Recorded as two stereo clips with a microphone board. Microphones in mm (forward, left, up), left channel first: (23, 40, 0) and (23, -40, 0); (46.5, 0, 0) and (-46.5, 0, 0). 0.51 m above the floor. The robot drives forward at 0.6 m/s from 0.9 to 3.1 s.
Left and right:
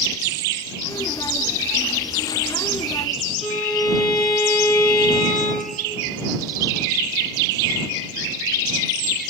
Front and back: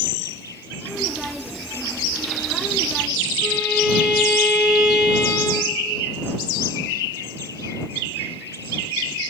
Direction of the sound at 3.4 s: 100° right.